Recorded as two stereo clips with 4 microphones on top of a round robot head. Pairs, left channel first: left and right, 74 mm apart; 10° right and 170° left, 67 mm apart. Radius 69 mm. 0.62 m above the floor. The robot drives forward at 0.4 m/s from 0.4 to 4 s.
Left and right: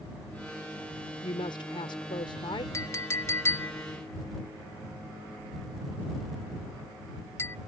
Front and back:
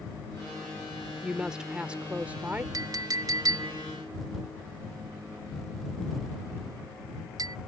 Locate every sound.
1.2 s a woman speaking: 90° left; by 2.6 s 105° left
2.7 s a clink: 140° left; by 7.6 s 145° left